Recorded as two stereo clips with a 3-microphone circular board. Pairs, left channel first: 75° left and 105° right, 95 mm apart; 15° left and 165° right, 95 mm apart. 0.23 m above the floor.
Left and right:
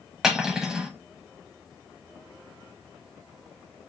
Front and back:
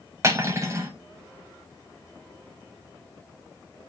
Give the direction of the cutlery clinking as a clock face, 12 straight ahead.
6 o'clock.